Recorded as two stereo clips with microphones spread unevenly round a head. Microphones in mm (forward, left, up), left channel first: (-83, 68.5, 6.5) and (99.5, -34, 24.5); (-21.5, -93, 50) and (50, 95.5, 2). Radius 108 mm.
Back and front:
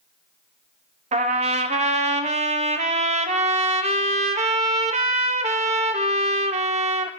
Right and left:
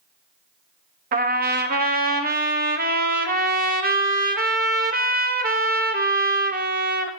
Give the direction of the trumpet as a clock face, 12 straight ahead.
11 o'clock.